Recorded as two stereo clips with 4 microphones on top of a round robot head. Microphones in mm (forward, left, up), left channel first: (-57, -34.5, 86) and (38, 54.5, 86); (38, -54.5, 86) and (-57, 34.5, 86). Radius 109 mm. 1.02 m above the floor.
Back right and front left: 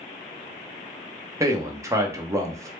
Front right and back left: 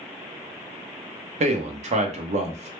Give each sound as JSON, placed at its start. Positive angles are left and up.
{"t": 1.4, "sound": "a man speaking", "azimuth_deg": 110, "distance_m": 0.7}